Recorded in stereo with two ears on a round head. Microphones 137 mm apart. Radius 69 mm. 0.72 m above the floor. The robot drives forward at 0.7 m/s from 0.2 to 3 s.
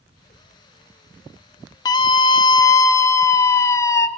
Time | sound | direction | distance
1.9 | a scream | 25° left (ahead or behind) | 0.6 m